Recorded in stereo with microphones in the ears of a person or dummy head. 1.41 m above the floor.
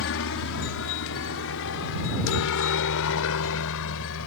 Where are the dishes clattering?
I don't hear dishes clattering.